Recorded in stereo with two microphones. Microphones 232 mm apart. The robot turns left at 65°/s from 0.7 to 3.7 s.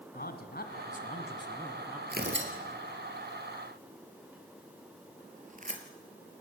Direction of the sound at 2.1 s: 40° right (ahead or behind).